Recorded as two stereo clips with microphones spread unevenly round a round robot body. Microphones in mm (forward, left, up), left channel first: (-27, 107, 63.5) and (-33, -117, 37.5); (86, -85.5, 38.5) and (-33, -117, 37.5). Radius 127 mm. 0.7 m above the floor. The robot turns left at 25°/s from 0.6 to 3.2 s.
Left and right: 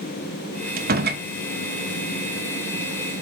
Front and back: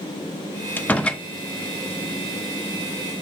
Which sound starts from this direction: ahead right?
A door slam, at 0.8 s.